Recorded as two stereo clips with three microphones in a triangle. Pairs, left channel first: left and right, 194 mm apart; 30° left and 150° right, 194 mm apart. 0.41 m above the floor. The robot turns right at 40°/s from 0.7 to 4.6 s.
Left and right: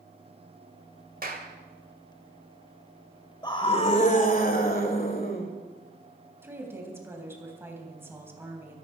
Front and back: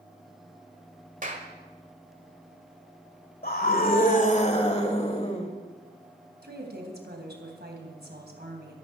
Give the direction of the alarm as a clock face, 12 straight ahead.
No alarm in this recording.